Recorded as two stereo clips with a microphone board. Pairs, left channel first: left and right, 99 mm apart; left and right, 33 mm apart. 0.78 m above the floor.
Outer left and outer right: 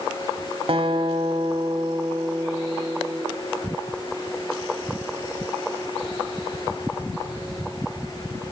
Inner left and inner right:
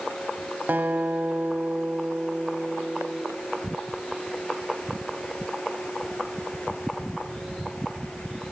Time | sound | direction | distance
0.7 | a guitar | 60° right (ahead or behind) | 1.3 m